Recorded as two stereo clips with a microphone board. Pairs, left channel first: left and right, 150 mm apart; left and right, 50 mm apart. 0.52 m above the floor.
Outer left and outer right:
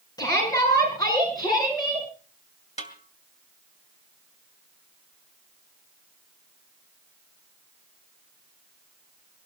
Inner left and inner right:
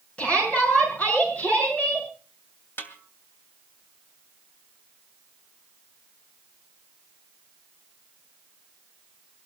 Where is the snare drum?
45° left (ahead or behind), 2.5 m.